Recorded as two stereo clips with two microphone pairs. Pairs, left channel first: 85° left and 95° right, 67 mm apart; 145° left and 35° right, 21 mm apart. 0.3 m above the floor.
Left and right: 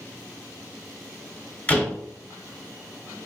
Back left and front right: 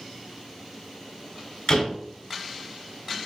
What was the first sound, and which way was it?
A door slam, 145° left.